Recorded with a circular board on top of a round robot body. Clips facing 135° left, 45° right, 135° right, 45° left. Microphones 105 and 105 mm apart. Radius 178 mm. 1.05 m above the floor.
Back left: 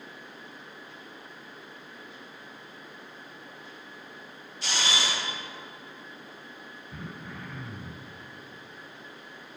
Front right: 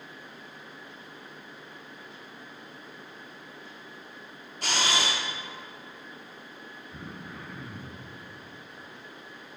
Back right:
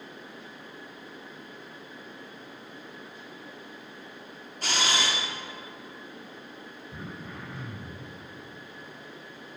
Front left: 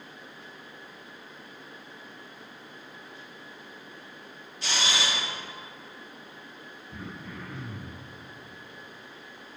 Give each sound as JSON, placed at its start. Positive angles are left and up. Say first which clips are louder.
{"t": 4.6, "sound": "a camera shutter", "louder": "front right 2 dB, back right 1 dB", "azimuth_deg": -90, "distance_m": 1.3}
{"t": 6.9, "sound": "throat clearing", "louder": "back left 1 dB, front left 1 dB", "azimuth_deg": 160, "distance_m": 1.9}